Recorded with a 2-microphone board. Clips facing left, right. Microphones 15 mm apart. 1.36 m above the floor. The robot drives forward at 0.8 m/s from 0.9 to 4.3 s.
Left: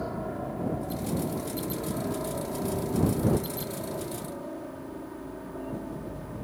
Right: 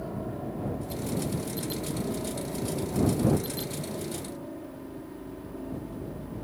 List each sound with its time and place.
0.0 s a helicopter: 30° left (ahead or behind)